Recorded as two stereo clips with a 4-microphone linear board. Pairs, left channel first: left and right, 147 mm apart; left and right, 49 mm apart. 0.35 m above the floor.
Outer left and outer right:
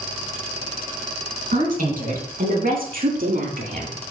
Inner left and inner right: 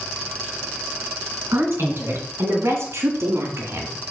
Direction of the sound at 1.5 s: 60° right (ahead or behind).